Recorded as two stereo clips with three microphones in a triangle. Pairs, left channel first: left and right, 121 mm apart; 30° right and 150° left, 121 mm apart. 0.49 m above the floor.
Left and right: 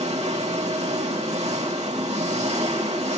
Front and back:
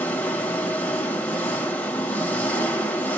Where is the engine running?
105° right, 2 m.